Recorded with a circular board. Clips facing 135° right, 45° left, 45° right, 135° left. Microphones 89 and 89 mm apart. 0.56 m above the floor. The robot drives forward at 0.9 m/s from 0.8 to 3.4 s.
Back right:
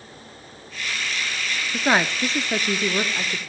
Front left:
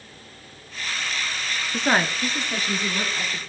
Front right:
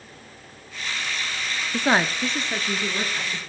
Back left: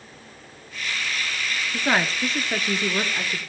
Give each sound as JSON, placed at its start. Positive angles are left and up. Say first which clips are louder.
{"t": 1.7, "sound": "a woman speaking", "louder": "back right 1 dB, front right 2 dB", "azimuth_deg": -50, "distance_m": 0.7}